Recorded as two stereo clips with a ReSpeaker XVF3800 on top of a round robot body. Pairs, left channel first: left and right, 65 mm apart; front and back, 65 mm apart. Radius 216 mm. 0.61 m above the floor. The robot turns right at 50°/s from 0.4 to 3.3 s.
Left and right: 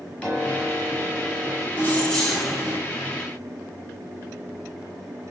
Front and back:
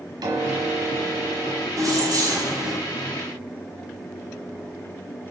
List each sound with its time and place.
0.2 s a piano: 160° left, 1.0 m; by 1.7 s 140° right, 1.0 m
1.8 s keys jangling: 150° left, 1.7 m; by 2.8 s 160° right, 1.7 m